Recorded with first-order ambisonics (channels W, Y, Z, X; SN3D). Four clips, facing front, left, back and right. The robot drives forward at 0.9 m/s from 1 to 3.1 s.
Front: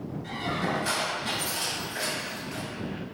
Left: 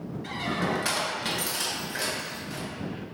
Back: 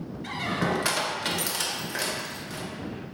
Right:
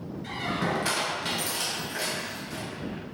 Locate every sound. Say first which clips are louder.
0.2 s a squeak: even, back 2 dB; 165° left, 0.6 m; by 2.7 s straight behind, 1.9 m